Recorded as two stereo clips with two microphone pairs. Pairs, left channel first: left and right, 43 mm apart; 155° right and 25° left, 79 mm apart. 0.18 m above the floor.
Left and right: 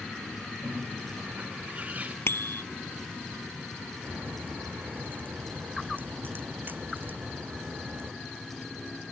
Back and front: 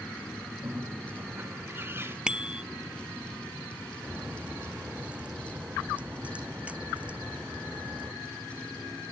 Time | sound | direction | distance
0.6 | a bird | 35° right | ?
2.3 | a bicycle bell | 105° left | ?
4.0 | a crack | 50° right | ?